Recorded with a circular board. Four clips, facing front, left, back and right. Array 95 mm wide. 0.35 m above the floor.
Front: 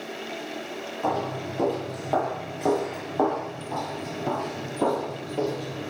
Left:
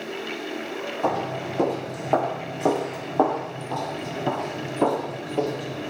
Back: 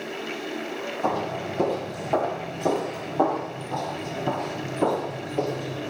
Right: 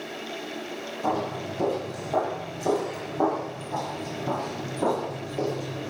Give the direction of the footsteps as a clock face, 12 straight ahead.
9 o'clock.